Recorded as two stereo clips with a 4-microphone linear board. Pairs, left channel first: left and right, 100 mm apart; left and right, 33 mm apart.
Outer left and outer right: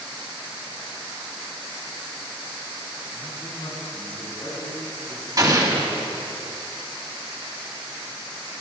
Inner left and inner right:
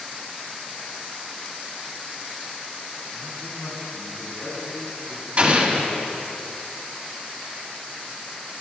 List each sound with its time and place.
3.1 s a man speaking: 45° left (ahead or behind), 3 m; by 6.4 s 65° left (ahead or behind), 6.5 m
5.4 s an explosion: 40° right (ahead or behind), 1.3 m